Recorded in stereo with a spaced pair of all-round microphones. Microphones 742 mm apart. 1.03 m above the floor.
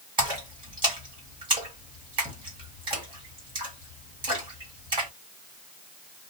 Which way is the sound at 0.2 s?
35° right (ahead or behind).